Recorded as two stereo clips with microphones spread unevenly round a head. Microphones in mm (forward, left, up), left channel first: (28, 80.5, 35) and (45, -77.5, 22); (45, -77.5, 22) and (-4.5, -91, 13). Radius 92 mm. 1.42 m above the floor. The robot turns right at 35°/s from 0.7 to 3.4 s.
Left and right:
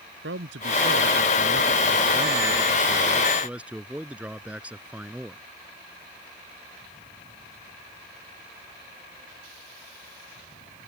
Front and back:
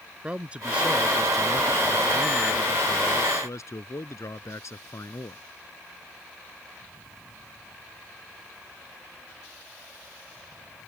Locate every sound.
0.2 s a man speaking: 95° right; by 5.4 s straight ahead